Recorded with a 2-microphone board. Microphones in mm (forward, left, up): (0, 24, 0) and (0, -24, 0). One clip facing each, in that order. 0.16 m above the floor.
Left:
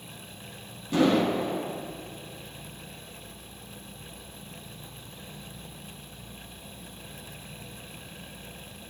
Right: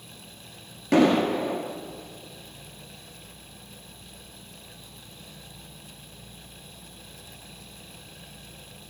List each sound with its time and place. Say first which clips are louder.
0.9 s an explosion: right 3 dB; 65° right (ahead or behind), 2.5 m